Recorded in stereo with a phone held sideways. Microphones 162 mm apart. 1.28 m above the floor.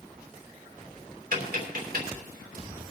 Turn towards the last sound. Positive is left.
turn(degrees=-65)  # may be behind; listen again after turning